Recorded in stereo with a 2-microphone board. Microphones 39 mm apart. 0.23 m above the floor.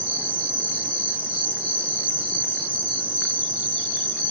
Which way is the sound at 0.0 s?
65° left (ahead or behind).